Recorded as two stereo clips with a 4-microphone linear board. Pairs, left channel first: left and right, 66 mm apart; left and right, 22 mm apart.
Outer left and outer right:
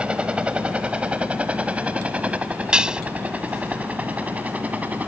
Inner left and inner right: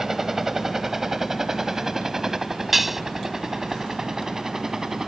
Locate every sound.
0.0 s a helicopter: 15° right (ahead or behind); by 5.1 s 25° right (ahead or behind)
2.7 s dishes clattering: 10° right (ahead or behind)